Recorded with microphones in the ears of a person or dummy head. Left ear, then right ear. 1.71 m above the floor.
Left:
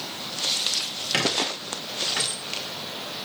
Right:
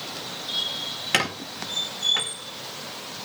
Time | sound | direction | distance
1.1 | a squeak | 35° right (ahead or behind) | 1.8 m